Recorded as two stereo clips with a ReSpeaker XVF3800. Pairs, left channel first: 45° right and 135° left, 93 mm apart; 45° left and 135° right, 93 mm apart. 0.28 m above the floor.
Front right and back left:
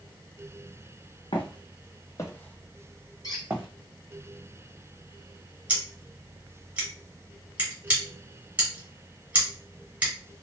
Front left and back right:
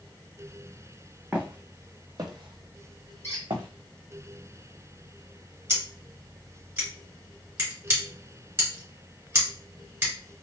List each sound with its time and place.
1.3 s footsteps: 60° right, 0.7 m; by 3.7 s 160° right, 0.9 m
3.2 s a squeak: 5° right, 1.5 m
5.7 s scissors: 165° right, 1.6 m